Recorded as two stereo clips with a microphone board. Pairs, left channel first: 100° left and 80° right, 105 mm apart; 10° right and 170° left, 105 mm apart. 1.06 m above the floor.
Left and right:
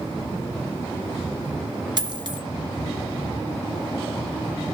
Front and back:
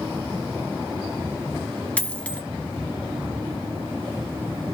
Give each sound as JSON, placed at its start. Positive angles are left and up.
{"t": 2.0, "sound": "a dropped coin", "azimuth_deg": -80, "distance_m": 1.2}